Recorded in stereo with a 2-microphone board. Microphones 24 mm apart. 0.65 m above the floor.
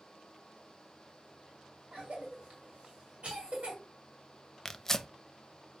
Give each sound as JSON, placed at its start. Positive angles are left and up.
{"t": 1.9, "sound": "a cough", "side_deg": -55, "distance_m": 1.9}
{"t": 4.7, "sound": "tearing paper", "side_deg": 20, "distance_m": 0.6}